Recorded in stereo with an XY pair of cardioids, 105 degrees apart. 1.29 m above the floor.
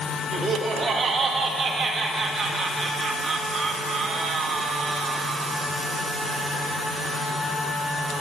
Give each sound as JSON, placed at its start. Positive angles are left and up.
{"t": 0.3, "sound": "laughter", "azimuth_deg": -50, "distance_m": 2.5}